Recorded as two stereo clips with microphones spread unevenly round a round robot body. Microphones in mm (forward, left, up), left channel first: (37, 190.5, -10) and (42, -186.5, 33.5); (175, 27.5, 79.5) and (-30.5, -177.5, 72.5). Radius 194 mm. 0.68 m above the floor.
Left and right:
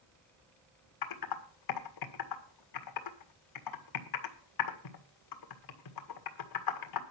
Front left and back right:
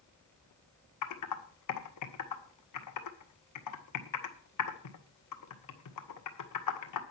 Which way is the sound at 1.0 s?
65° left.